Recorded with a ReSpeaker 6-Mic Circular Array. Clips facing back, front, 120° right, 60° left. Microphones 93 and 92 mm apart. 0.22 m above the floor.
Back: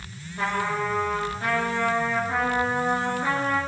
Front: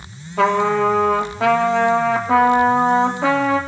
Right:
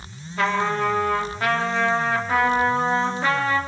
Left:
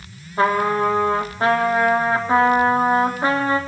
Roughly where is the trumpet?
Ahead.